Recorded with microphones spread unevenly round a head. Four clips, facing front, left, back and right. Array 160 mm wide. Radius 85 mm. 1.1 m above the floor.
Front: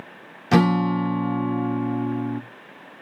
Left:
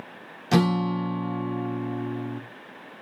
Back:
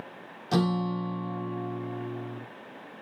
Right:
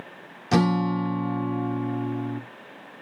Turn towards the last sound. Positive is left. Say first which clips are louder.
# right 1 dB, front 8 dB
turn(degrees=-10)